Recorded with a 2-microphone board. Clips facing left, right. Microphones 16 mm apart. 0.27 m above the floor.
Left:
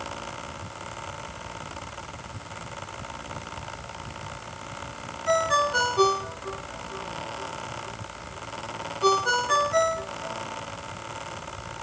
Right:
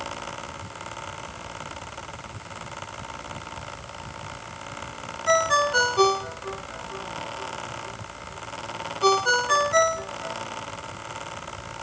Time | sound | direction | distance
5.3 | a ringtone | 20° right (ahead or behind) | 1.7 m